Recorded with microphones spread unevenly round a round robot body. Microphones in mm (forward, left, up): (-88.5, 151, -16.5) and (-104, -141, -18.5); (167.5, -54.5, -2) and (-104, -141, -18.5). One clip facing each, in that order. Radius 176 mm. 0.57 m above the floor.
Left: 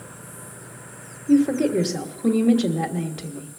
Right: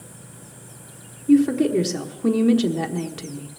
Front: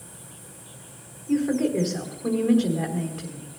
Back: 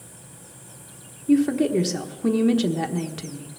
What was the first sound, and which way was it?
A woman speaking, 155° right.